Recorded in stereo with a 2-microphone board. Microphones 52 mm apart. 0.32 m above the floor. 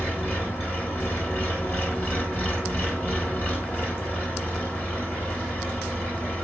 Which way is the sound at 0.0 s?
35° left (ahead or behind).